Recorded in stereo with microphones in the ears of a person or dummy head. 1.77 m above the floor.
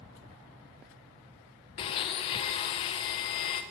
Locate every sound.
1.8 s a blender: 30° left (ahead or behind), 0.9 m